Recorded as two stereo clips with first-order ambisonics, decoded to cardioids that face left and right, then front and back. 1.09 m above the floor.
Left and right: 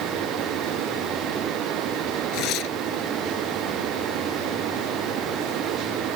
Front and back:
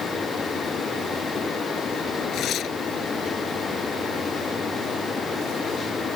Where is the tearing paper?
50° left.